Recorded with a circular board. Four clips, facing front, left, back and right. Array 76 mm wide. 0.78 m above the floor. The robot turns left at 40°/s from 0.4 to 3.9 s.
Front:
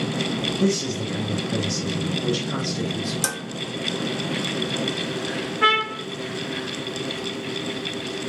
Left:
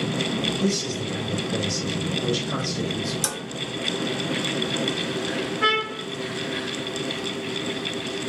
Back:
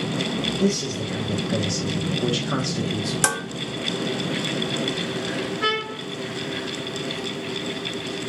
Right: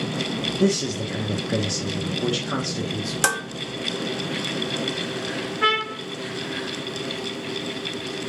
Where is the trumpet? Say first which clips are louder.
Right 2 dB, front 9 dB; 15° right, 0.5 m.